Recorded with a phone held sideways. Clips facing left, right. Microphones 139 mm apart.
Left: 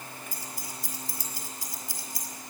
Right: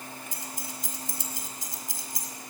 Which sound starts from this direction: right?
Keys jangling, at 0.3 s.